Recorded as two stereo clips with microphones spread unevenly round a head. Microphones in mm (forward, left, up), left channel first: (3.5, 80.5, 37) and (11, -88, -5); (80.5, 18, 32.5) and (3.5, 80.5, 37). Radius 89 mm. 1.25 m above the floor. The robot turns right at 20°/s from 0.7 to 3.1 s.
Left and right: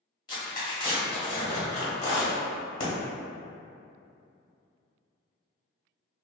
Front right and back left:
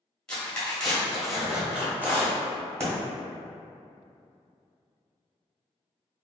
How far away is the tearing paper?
About 1.4 m.